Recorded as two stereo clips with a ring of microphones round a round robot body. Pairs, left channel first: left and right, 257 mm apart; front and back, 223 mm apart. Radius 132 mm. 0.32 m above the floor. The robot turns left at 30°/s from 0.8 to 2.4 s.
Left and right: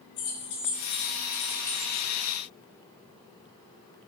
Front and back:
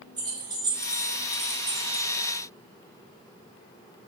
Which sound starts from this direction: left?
Keys jangling, at 0.2 s.